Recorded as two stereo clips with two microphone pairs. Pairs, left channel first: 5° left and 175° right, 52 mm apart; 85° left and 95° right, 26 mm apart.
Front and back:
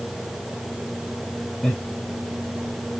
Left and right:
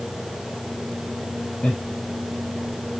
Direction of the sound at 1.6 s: 85° left.